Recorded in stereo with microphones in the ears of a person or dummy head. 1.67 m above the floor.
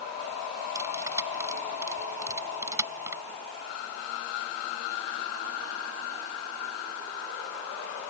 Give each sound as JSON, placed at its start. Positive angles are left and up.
{"t": 0.8, "sound": "cutlery clinking", "side_deg": -20}